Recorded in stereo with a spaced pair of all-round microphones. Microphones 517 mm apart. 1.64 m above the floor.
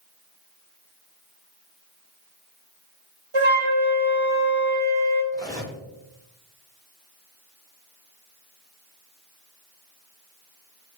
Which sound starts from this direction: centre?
Cutlery clinking, at 5.3 s.